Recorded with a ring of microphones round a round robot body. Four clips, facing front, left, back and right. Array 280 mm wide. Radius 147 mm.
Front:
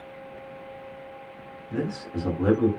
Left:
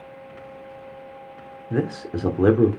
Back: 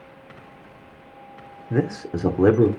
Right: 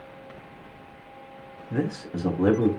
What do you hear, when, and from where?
1.7 s a man speaking: 145° left, 1.7 m